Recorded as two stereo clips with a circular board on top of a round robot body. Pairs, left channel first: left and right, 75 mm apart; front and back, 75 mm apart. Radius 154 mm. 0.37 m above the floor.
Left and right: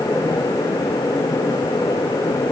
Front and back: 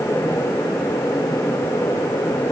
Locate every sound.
Only background noise.